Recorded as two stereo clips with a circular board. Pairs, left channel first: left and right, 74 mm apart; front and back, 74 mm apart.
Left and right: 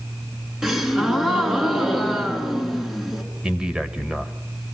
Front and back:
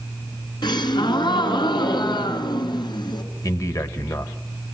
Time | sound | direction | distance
0.6 | a gasp | 5° right | 3.5 m
3.4 | a man speaking | 15° right | 1.7 m